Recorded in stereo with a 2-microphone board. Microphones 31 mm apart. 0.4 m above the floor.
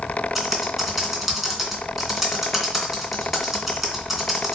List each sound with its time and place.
0.3 s typing on a keyboard: 10° right (ahead or behind), 2.0 m